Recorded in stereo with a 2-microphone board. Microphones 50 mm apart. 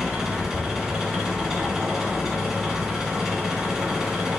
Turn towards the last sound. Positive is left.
turn(degrees=-10)  # may be behind; listen again after turning